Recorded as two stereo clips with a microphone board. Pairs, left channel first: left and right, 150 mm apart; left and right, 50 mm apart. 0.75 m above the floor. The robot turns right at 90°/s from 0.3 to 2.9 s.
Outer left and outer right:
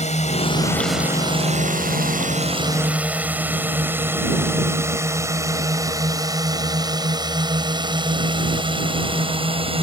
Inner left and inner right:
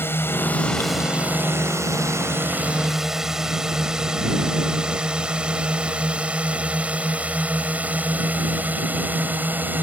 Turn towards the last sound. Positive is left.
turn(degrees=-40)  # may be behind; listen again after turning